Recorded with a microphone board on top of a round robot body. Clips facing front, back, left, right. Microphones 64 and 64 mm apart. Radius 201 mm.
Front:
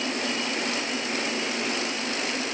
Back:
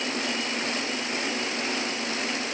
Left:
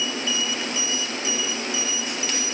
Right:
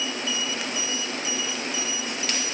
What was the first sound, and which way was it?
Only background noise.